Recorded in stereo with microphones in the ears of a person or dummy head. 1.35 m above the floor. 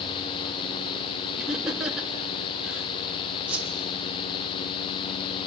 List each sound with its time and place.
1.4 s laughter: centre (ahead or behind), 2.5 m
3.5 s a whoosh: 5° right (ahead or behind), 3 m